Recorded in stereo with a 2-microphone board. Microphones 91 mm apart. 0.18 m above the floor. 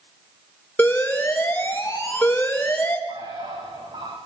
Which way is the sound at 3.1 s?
65° right (ahead or behind).